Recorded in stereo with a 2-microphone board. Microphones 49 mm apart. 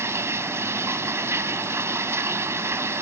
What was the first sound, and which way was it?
Running water, 65° right (ahead or behind).